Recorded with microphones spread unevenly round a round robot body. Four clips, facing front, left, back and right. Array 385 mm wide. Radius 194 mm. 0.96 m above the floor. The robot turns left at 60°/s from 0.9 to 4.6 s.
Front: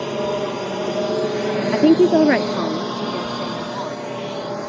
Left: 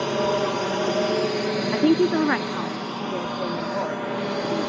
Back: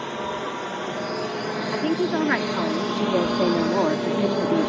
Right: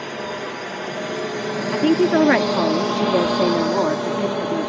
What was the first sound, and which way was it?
A drone, 40° left.